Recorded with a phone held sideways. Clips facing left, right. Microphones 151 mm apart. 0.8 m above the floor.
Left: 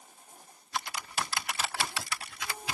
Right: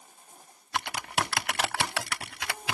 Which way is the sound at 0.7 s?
65° right (ahead or behind).